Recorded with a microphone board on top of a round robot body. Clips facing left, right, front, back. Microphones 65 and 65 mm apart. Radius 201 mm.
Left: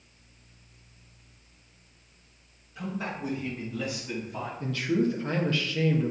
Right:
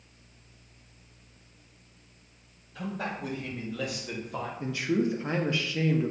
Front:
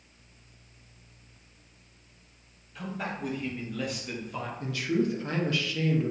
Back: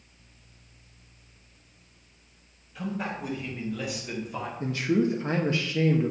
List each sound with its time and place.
2.8 s a man speaking: 90° right, 3.5 m; by 4.5 s 100° right, 2 m
4.6 s a man speaking: 150° right, 1.0 m